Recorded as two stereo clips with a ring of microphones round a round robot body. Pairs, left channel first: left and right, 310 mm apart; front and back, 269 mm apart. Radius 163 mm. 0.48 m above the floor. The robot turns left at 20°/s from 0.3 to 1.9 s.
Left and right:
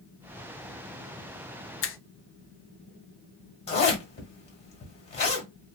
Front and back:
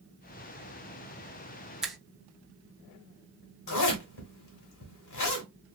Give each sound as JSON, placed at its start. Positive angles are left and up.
{"t": 1.8, "sound": "a finger snap", "azimuth_deg": 95, "distance_m": 0.6}
{"t": 3.7, "sound": "a zipper", "azimuth_deg": 20, "distance_m": 1.4}